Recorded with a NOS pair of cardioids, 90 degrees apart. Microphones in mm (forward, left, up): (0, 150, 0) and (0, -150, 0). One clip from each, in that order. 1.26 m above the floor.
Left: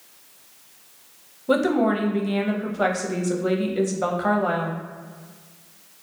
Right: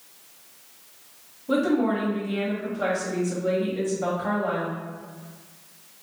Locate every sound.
1.5 s a woman speaking: 40° left, 0.6 m